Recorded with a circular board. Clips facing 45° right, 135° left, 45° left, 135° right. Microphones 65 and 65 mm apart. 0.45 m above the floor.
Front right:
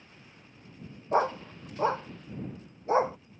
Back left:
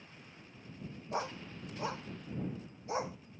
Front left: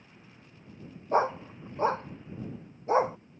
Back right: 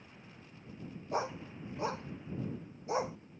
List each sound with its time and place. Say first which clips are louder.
1.1 s a dog barking: front right 12 dB, front left 10 dB; straight ahead